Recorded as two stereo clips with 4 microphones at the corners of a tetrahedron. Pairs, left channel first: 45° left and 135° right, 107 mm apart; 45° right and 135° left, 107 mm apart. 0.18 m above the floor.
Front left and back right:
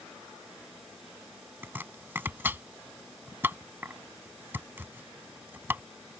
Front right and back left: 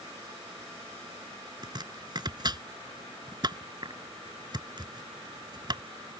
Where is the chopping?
160° left.